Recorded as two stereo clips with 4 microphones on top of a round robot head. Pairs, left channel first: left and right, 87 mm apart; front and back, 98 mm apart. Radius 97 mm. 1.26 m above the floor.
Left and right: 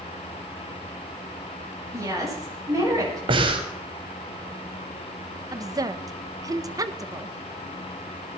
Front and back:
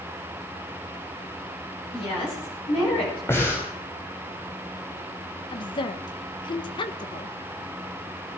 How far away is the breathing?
About 2.5 m.